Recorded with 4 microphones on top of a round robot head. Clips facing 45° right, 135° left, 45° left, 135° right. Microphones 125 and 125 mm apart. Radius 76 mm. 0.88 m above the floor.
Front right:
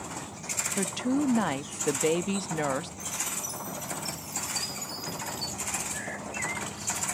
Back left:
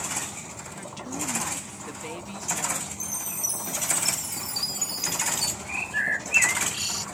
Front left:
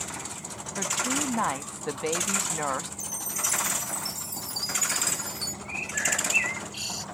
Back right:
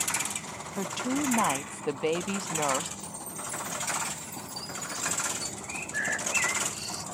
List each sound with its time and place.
0.8 s a woman speaking: 60° right
3.0 s a chime: 95° left
5.7 s a bird: 115° left